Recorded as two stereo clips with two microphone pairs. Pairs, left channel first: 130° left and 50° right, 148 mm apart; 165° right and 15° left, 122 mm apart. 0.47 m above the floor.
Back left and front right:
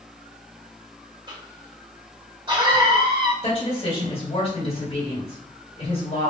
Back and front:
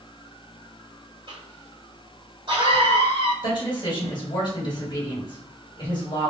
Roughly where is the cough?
Ahead.